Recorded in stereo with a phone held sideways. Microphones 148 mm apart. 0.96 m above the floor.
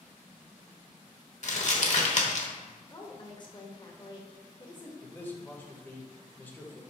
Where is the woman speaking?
35° left (ahead or behind), 1.0 m.